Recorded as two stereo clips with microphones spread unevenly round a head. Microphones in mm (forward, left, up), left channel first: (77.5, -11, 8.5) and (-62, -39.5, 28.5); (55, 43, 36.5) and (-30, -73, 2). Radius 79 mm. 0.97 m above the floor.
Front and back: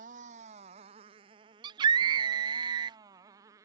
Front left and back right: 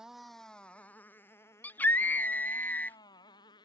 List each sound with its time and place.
0.0 s a motorcycle: 145° left; by 3.7 s 120° left
1.6 s a scream: 145° left